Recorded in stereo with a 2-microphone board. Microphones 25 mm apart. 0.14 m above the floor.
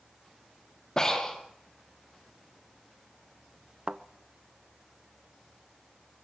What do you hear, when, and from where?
1.0 s breathing: 25° left (ahead or behind), 3 m
3.9 s a thud: 40° right (ahead or behind), 0.7 m